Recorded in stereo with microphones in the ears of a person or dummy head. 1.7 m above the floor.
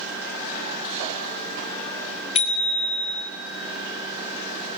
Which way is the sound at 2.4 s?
40° left (ahead or behind).